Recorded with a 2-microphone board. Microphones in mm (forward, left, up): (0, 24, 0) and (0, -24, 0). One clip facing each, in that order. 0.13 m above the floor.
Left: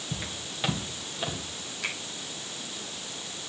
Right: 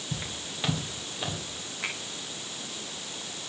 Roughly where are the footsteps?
Centre.